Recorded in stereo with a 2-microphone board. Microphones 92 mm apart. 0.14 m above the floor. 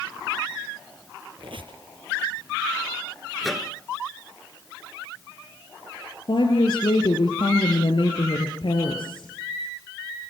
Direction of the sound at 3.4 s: Centre (ahead or behind).